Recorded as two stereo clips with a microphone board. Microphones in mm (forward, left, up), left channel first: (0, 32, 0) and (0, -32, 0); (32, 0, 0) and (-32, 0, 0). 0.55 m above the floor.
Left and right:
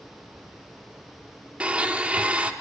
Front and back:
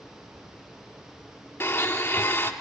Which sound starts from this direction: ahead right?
A blender, at 1.6 s.